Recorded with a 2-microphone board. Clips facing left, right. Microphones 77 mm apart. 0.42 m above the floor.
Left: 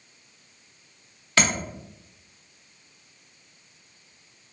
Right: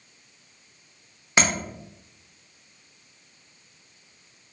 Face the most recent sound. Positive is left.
turn(degrees=-20)  # may be behind; listen again after turning